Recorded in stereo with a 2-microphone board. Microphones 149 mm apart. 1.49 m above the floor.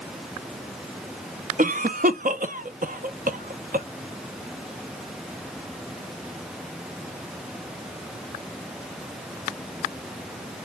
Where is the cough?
65° right (ahead or behind), 0.7 m.